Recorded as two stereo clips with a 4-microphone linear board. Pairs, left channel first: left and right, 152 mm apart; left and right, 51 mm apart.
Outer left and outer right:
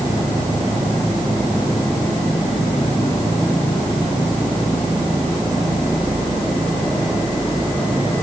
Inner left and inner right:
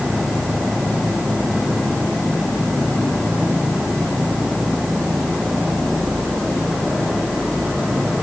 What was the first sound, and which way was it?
Only background noise.